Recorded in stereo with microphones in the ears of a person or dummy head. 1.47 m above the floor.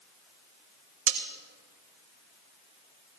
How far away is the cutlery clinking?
About 2.5 m.